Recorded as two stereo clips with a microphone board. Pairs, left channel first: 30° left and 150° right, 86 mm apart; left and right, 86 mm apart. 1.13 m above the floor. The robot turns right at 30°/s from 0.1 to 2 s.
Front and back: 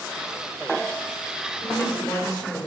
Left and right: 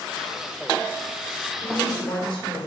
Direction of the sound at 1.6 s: 65° left.